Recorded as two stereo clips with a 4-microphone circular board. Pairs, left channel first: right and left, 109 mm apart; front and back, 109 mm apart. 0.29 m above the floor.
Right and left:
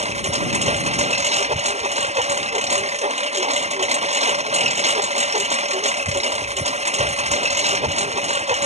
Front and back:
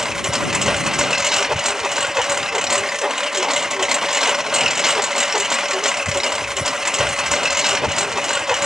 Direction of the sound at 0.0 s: 95° left.